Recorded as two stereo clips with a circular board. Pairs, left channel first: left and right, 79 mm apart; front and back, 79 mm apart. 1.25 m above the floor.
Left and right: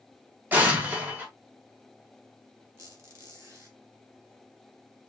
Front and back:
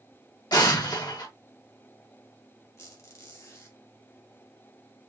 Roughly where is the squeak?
Ahead right.